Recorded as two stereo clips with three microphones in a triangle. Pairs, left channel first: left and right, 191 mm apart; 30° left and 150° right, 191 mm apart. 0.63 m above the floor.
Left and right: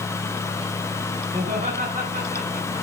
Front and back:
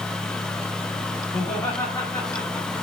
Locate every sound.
1.3 s laughter: 40° right, 5.5 m; by 2.8 s 45° right, 6 m